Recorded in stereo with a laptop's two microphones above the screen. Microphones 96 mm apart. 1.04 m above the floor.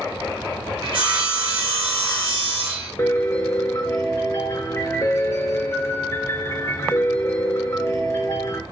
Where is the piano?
30° left (ahead or behind), 0.7 m.